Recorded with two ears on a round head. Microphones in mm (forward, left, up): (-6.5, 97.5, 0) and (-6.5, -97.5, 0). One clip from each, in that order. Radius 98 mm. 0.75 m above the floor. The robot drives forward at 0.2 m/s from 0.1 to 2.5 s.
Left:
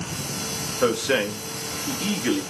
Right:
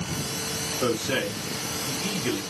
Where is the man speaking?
45° left (ahead or behind), 1.1 m; by 2.4 s 40° left (ahead or behind), 1.3 m.